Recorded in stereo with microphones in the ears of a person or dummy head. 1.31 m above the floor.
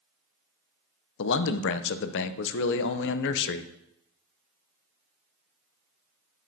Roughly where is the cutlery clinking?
I don't hear cutlery clinking.